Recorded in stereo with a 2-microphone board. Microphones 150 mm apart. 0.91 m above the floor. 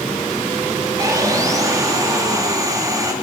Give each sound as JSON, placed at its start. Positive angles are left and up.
{"t": 1.0, "sound": "sawing", "side_deg": -25, "distance_m": 1.8}